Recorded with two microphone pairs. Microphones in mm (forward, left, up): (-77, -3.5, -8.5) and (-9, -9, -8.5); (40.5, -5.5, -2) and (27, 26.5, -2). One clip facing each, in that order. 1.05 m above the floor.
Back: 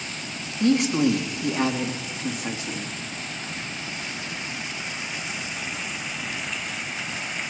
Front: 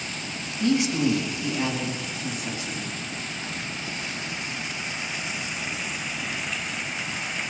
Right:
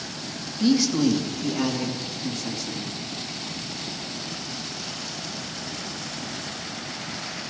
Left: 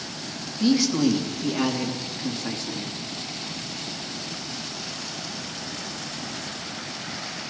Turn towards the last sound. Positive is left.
turn(degrees=160)